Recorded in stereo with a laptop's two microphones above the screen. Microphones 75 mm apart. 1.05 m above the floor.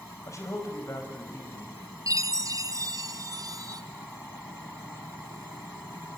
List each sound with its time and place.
0.3 s a man speaking: 45° left (ahead or behind), 5.5 m
2.1 s a chime: 50° right (ahead or behind), 0.8 m